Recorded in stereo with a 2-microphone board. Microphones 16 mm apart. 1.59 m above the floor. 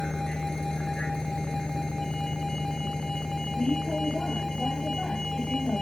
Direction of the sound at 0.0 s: 50° left (ahead or behind).